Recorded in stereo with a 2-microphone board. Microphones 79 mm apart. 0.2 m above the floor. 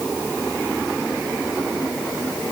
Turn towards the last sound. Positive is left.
No sound to turn to.